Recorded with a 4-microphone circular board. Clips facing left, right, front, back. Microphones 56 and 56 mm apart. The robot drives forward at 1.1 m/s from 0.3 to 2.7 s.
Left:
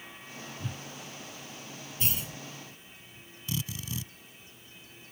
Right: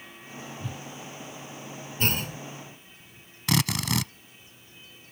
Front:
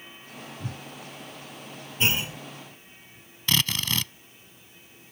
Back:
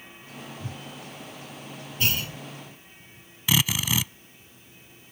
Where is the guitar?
I don't hear a guitar.